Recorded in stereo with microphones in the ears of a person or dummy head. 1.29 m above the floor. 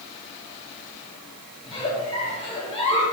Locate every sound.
1.6 s a giggle: 30° left (ahead or behind), 3 m